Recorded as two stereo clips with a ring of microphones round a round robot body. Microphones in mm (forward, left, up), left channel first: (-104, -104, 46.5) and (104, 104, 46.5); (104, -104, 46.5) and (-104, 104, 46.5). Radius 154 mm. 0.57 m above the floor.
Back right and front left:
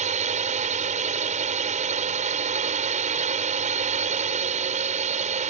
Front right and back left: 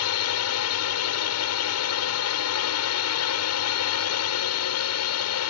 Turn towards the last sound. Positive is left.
turn(degrees=-20)